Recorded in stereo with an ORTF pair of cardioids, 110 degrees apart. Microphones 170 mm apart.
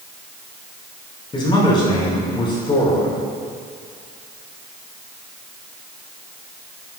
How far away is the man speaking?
About 5.5 m.